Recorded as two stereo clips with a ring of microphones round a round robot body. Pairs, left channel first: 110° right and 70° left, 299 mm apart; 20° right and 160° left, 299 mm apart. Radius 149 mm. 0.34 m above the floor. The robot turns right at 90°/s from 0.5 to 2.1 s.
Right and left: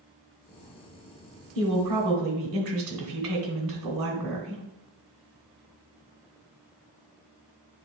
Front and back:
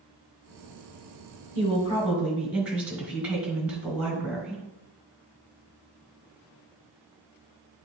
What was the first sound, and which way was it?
A woman speaking, 20° left.